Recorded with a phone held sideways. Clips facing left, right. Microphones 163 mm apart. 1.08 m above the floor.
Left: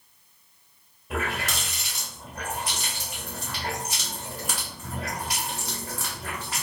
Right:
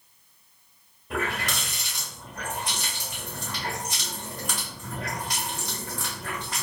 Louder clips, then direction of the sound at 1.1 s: Even; 5° left (ahead or behind).